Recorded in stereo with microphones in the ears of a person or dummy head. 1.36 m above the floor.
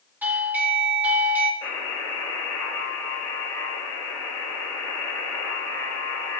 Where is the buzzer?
15° left (ahead or behind), 4.5 m.